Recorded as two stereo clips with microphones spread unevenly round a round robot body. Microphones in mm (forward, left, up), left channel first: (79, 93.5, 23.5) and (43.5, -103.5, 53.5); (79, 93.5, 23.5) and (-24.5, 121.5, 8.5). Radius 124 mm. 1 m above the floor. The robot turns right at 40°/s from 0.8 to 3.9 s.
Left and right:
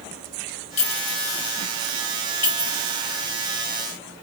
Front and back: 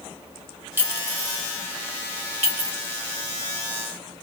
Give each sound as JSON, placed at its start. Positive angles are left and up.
{"t": 0.8, "sound": "a clink", "azimuth_deg": 95, "distance_m": 1.2}